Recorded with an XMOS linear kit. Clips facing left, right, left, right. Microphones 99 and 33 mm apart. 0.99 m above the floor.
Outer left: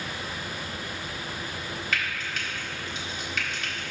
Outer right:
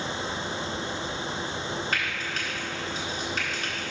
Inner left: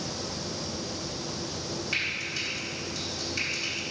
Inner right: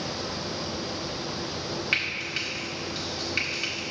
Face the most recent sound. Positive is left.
turn(degrees=-40)  # may be behind; listen again after turning